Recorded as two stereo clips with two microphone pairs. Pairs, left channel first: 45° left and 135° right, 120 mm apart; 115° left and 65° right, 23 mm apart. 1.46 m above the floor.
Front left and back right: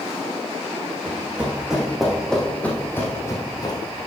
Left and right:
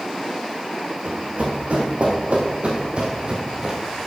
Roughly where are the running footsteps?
Ahead right.